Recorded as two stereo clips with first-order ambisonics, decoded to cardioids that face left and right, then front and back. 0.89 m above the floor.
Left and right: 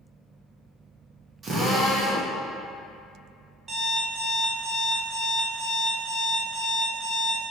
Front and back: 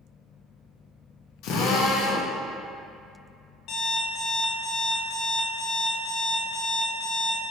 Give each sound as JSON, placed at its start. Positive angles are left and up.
{"t": 1.4, "sound": "a drill", "azimuth_deg": -25, "distance_m": 0.6}
{"t": 3.7, "sound": "an alarm clock", "azimuth_deg": -25, "distance_m": 0.7}